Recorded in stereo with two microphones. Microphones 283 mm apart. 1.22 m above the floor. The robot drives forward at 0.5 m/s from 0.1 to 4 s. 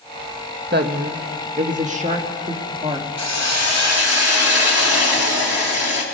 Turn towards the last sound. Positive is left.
turn(degrees=60)  # may be behind; listen again after turning